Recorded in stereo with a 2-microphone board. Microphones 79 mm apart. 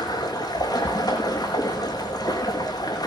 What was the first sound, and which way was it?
Running water, 65° left (ahead or behind).